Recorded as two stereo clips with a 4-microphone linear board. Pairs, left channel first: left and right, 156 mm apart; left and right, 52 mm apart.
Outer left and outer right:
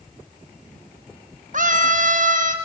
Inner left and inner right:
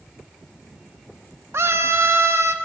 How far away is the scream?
About 1.4 m.